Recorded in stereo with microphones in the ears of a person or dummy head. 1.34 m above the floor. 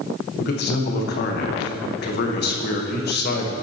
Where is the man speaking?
50° left (ahead or behind), 1.2 m.